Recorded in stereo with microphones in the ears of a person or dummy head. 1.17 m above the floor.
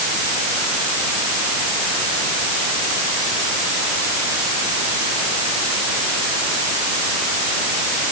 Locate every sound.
Only background noise.